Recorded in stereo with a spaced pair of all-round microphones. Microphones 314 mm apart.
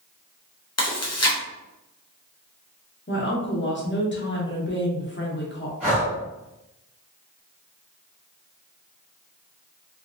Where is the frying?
No frying in this recording.